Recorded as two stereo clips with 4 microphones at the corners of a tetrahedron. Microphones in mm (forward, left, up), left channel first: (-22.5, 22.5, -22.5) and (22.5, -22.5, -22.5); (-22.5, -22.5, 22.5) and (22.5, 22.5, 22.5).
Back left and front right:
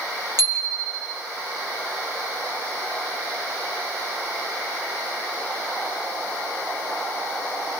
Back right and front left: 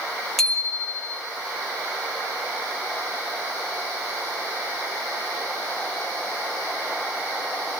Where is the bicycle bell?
50° right, 8.5 m.